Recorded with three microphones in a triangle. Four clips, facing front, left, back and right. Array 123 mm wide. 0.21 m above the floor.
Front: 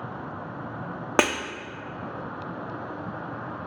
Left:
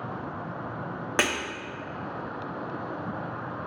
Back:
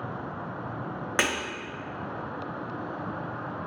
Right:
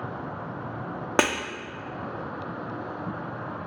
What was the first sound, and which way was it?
Breaking glass, 30° right.